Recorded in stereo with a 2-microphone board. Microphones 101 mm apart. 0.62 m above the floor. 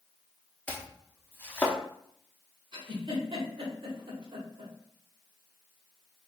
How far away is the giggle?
About 0.9 m.